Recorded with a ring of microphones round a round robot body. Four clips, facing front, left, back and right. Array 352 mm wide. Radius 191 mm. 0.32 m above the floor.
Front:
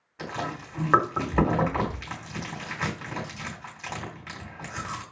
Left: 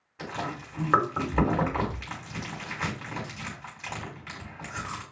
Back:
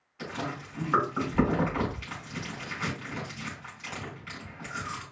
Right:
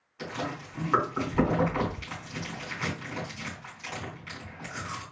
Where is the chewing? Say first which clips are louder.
Even, front 2 dB; 25° left, 3.5 m.